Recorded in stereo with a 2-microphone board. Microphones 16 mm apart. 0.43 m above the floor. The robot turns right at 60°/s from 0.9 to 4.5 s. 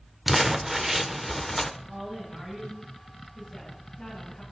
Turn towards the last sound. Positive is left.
turn(degrees=80)